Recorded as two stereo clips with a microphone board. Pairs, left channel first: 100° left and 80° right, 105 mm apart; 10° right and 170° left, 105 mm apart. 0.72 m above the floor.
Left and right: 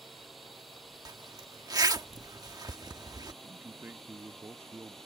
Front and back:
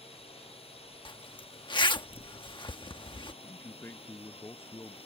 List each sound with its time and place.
0.0 s a drone: 10° left; by 5.1 s 15° left
1.1 s a zipper: 40° right
3.4 s a man speaking: 50° right